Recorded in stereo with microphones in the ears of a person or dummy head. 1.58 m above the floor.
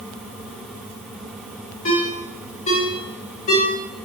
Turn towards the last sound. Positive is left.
turn(degrees=40)  # may be behind; listen again after turning